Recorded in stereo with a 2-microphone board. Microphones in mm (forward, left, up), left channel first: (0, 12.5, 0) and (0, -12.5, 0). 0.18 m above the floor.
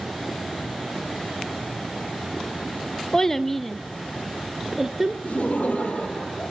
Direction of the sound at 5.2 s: 60° left (ahead or behind).